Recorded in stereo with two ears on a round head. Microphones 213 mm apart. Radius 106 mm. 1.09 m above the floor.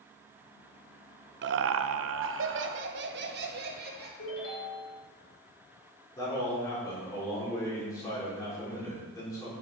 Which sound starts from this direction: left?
A ringtone, at 4.2 s.